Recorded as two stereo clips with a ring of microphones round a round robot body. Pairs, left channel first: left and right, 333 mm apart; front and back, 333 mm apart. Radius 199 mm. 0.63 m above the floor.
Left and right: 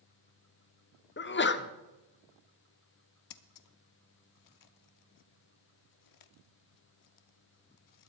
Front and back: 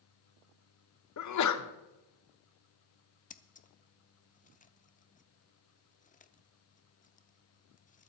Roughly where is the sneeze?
Ahead left.